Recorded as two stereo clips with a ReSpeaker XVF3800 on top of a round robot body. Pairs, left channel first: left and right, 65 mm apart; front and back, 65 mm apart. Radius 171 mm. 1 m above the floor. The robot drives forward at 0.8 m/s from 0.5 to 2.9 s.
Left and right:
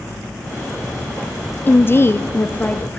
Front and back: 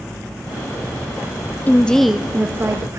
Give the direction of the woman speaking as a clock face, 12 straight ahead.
10 o'clock.